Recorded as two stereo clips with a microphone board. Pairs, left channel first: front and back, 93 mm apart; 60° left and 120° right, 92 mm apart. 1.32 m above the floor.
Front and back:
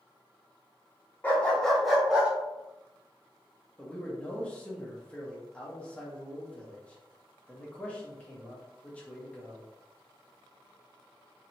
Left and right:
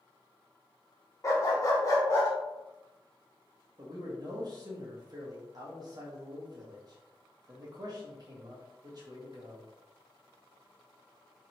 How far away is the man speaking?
About 1.4 m.